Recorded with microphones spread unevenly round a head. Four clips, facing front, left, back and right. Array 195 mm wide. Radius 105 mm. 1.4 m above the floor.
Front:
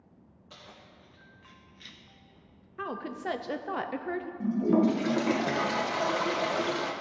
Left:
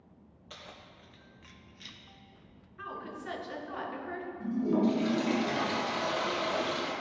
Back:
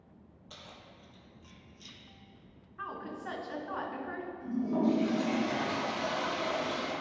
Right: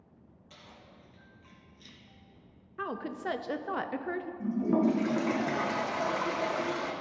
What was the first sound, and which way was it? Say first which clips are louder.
Keys jangling: left 4 dB, front 1 dB; 90° left.